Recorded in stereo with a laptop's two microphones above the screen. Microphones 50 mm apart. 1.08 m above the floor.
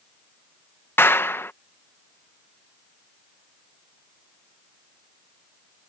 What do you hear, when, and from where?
1.0 s a clap: 50° left (ahead or behind)